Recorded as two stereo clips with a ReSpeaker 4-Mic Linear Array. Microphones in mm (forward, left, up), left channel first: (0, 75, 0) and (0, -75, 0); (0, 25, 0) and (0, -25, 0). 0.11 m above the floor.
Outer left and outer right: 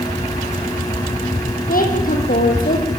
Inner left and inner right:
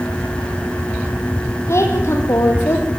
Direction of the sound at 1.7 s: 70° left (ahead or behind).